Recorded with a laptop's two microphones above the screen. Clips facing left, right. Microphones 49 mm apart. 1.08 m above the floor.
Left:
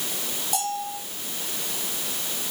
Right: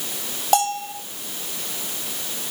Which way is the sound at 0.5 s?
65° right (ahead or behind).